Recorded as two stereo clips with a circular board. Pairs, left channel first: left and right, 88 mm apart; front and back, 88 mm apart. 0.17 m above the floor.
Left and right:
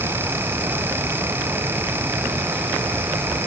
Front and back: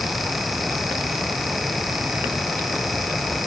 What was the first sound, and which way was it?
Only background noise.